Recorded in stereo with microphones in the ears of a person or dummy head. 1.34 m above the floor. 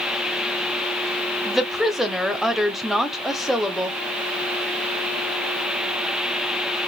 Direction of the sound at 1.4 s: Centre (ahead or behind).